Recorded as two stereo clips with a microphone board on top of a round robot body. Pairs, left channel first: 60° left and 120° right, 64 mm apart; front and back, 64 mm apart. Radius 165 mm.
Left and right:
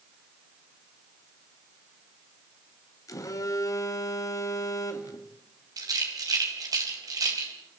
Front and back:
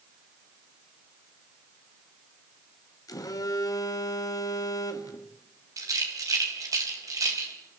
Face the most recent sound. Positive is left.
turn(degrees=-145)